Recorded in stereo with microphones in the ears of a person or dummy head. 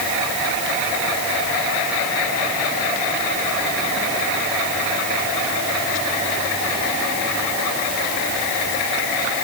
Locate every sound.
Only background noise.